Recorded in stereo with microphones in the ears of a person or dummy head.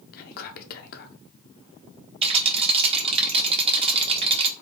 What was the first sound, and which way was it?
Whispering, 50° left (ahead or behind).